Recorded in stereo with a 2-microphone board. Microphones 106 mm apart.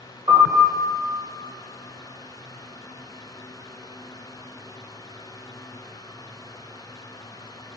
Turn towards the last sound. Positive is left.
turn(degrees=-50)  # may be behind; listen again after turning